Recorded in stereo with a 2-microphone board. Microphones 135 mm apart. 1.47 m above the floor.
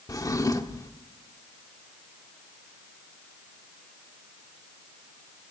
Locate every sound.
0.1 s a drawer: 25° left (ahead or behind), 1.2 m